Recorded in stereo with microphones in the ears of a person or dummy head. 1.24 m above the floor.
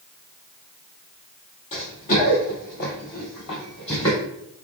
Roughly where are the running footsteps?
Left.